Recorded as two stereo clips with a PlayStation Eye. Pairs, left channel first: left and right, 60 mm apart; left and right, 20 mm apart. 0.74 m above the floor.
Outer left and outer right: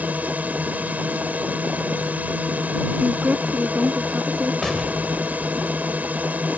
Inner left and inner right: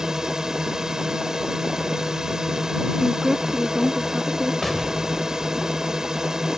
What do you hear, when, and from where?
0.0 s a drone: 25° right (ahead or behind)
3.0 s a woman speaking: 25° right (ahead or behind)
4.6 s an explosion: 5° left (ahead or behind)